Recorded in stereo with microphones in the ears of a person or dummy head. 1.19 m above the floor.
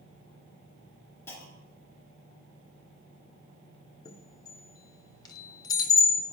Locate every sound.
1.3 s a clunk: 15° left (ahead or behind), 1.5 m
4.0 s a chime: 25° left (ahead or behind), 0.8 m